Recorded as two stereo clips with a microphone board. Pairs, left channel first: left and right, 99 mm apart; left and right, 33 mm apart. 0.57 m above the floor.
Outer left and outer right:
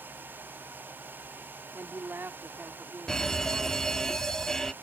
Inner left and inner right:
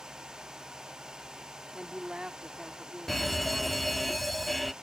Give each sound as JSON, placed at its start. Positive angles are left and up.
{"t": 1.7, "sound": "a woman speaking", "side_deg": -20}
{"t": 3.1, "sound": "an alarm", "side_deg": 5}